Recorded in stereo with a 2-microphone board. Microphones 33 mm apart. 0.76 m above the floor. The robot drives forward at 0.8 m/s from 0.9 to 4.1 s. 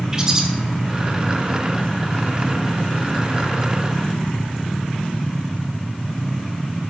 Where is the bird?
20° right (ahead or behind), 1.2 m.